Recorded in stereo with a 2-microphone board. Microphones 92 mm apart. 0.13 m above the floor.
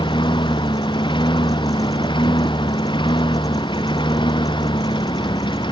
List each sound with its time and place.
0.0 s a lawn mower: 60° left (ahead or behind)